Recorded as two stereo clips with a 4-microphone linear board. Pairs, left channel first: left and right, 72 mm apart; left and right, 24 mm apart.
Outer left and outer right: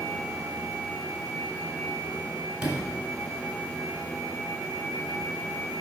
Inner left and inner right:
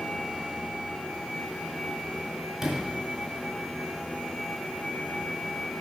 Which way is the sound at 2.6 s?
10° right (ahead or behind).